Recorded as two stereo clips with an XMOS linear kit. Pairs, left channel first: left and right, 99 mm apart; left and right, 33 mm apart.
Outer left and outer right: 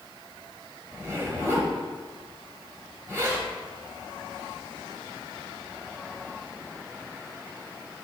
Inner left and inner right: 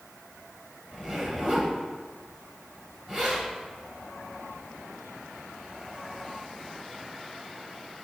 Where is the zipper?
30° right (ahead or behind), 1.5 m.